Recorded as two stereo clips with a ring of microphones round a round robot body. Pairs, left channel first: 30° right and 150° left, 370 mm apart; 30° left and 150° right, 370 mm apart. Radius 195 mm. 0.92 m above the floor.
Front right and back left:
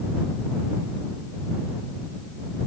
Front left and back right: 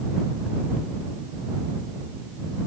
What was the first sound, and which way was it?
Only background noise.